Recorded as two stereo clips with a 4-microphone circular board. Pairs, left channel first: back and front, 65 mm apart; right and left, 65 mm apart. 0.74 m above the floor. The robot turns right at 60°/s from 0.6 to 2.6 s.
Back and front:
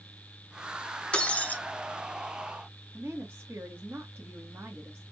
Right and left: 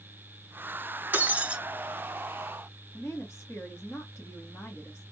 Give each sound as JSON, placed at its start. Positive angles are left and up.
{"t": 1.1, "sound": "breaking glass", "azimuth_deg": 120, "distance_m": 0.8}
{"t": 2.9, "sound": "a woman speaking", "azimuth_deg": -50, "distance_m": 1.4}